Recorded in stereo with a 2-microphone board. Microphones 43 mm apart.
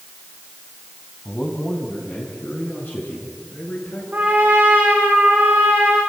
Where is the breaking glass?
No breaking glass in this recording.